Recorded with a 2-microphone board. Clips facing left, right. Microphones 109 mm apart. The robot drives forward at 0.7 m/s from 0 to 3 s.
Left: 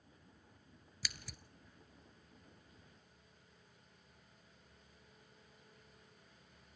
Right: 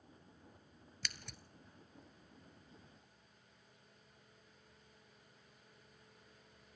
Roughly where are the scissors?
Centre.